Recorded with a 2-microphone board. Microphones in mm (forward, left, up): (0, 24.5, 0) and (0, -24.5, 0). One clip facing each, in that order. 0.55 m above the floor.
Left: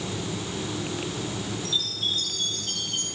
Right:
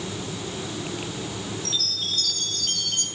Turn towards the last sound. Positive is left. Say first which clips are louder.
# left 1 dB
turn(degrees=-60)  # may be behind; listen again after turning